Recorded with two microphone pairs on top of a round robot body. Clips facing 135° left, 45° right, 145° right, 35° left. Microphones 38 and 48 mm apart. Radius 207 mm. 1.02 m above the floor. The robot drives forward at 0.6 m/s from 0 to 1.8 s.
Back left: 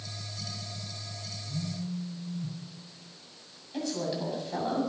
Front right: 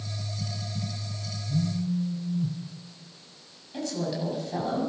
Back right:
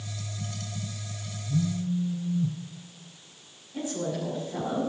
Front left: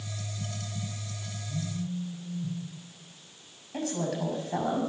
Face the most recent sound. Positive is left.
turn(degrees=50)